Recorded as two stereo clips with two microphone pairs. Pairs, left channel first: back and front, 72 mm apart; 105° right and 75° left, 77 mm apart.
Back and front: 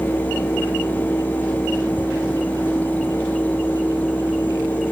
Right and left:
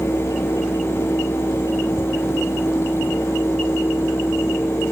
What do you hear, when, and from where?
Only background noise.